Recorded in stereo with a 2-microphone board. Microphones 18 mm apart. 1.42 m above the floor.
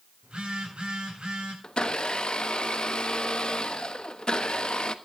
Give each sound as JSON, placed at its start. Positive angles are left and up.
{"t": 0.2, "sound": "a phone buzzing", "side_deg": -85, "distance_m": 8.5}
{"t": 1.6, "sound": "a blender", "side_deg": 60, "distance_m": 1.1}